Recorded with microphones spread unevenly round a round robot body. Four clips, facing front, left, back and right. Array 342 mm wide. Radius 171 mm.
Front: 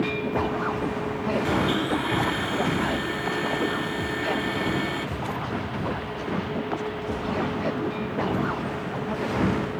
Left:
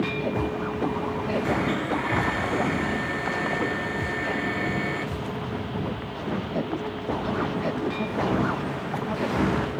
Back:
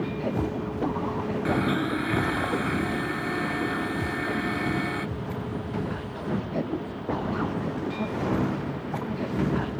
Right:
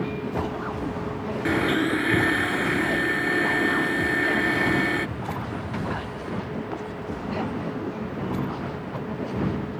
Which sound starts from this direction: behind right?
A blender, at 1.4 s.